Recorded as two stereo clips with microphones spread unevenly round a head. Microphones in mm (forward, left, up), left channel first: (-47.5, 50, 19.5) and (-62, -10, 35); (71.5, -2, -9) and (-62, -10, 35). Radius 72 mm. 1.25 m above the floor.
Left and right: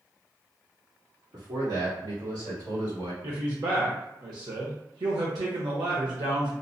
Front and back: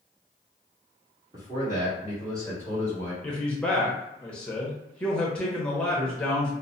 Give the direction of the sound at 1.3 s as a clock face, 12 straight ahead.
4 o'clock.